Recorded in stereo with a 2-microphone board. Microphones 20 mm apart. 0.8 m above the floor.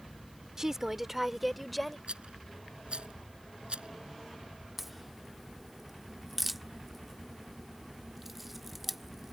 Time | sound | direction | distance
0.6 | a woman speaking | 25° right (ahead or behind) | ?
2.1 | a rattle | 65° right (ahead or behind) | ?
4.8 | a crack | 10° right (ahead or behind) | ?